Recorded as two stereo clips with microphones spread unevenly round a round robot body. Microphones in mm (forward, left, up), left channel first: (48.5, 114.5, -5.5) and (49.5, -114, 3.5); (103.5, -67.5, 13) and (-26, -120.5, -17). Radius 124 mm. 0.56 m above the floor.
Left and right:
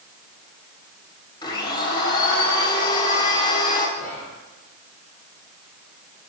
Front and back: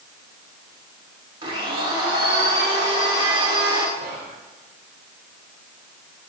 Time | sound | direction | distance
1.4 | a blender | 155° left | 1.8 m
4.0 | whispering | 170° left | 1.5 m